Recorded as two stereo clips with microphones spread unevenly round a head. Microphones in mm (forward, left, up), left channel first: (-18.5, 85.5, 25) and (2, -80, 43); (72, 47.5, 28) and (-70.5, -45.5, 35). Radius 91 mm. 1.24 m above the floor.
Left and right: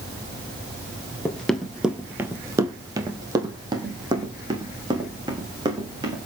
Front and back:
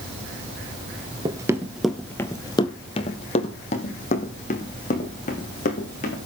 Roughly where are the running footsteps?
Behind.